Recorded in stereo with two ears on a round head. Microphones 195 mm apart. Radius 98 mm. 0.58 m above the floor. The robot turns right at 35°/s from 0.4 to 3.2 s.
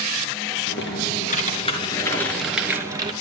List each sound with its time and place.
0.7 s typing on a keyboard: 115° left, 3.5 m; by 3.1 s 155° right, 3.5 m